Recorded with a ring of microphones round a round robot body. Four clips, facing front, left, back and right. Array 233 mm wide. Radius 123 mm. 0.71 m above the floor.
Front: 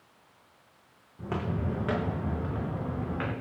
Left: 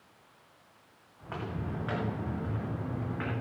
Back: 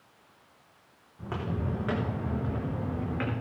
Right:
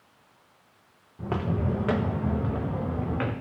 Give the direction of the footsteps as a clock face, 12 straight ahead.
3 o'clock.